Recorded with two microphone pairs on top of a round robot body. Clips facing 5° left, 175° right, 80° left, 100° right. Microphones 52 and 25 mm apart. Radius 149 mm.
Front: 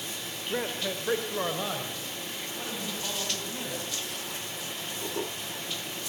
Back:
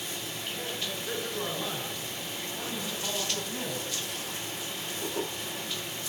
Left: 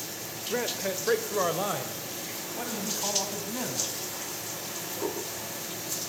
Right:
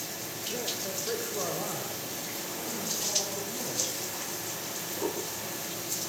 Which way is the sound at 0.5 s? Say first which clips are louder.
Front 7 dB, left 6 dB; 55° left.